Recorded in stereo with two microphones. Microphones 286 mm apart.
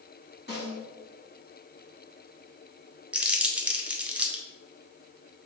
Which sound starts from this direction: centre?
Crumpling, at 3.1 s.